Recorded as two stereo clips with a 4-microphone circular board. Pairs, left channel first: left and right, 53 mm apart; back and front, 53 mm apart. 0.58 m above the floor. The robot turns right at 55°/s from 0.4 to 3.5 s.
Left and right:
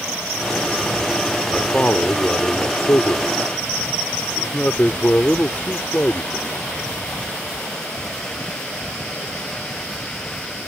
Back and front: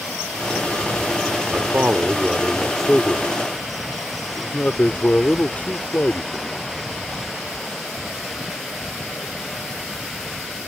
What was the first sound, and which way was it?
A man speaking, 25° left.